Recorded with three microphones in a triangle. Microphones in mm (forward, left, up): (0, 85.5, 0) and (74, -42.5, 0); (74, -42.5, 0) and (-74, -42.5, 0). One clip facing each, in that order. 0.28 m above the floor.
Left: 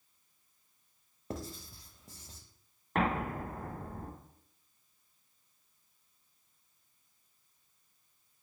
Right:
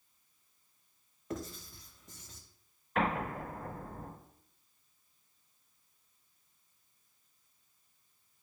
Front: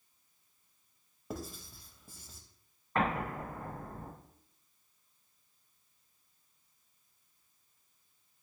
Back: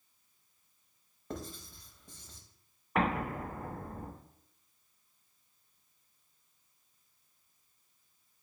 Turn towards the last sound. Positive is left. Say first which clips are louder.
# left 1 dB, back 1 dB
turn(degrees=110)